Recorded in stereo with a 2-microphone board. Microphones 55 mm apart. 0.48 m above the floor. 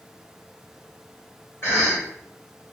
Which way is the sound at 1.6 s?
40° left (ahead or behind).